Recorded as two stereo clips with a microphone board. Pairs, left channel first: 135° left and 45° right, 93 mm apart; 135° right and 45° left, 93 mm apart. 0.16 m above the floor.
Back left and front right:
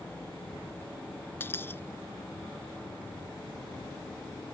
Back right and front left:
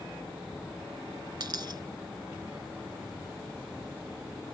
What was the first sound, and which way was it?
A dropped coin, 75° left.